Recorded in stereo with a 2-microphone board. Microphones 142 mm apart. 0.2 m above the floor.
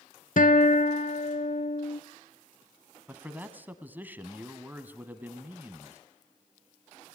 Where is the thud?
No thud in this recording.